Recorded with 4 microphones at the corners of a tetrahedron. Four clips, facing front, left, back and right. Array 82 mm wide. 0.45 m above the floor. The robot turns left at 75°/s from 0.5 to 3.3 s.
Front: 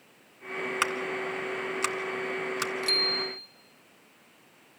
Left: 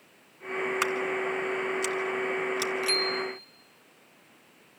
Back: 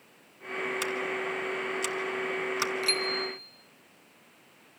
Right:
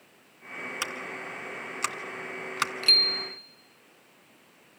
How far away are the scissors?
About 1.6 m.